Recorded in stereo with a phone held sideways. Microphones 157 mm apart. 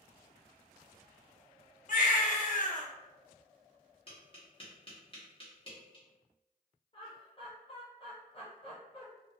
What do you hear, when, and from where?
1.9 s a baby crying: 55° left (ahead or behind), 0.5 m
4.1 s tapping: 35° left (ahead or behind), 1.1 m
6.9 s laughter: 35° left (ahead or behind), 0.6 m